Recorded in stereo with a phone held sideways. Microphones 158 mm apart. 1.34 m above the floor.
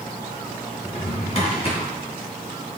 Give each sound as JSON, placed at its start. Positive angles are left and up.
{"t": 0.8, "sound": "a drawer", "side_deg": 40, "distance_m": 3.0}